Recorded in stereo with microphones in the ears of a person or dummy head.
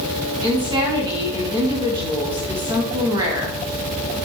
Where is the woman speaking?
20° right (ahead or behind), 1.7 m.